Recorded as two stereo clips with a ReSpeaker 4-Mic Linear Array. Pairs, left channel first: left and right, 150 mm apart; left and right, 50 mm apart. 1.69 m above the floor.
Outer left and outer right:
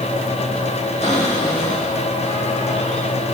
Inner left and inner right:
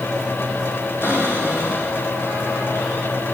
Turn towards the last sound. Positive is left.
turn(degrees=50)  # may be behind; listen again after turning